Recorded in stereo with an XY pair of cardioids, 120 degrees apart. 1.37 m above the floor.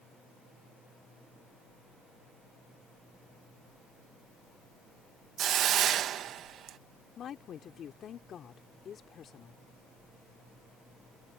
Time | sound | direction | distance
5.4 | a hiss | 60° right | ?
7.2 | a woman speaking | 50° left | ?